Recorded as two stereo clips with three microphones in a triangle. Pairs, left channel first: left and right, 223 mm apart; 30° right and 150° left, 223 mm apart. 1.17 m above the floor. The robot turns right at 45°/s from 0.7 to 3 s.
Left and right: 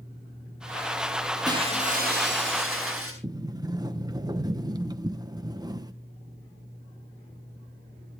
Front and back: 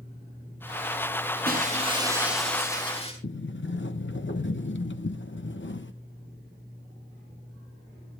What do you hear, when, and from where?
1.4 s breaking glass: 165° right, 8 m; by 3.1 s 95° right, 8 m
3.2 s a sliding door: 20° right, 0.9 m